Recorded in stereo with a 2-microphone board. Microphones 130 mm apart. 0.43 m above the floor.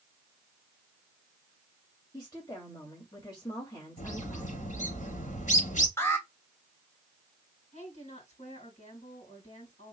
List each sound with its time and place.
2.1 s a woman speaking: 30° left (ahead or behind), 2.5 m
4.0 s a bird: 75° left (ahead or behind), 3.5 m
6.0 s an alarm: 20° left (ahead or behind), 2.5 m
7.7 s a woman speaking: 60° left (ahead or behind), 5 m